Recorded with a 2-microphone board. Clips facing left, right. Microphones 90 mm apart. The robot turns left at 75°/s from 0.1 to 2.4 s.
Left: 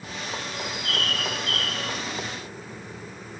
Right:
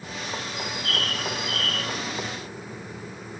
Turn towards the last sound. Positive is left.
turn(degrees=120)